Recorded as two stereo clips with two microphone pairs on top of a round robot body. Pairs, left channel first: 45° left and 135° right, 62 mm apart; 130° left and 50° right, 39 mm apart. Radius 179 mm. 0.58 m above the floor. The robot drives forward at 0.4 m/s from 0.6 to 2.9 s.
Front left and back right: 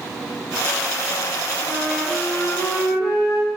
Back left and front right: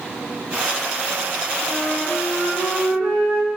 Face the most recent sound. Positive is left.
turn(degrees=135)